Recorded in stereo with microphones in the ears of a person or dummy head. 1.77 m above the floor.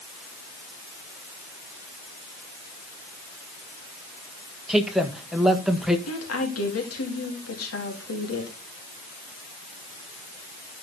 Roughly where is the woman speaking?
Left.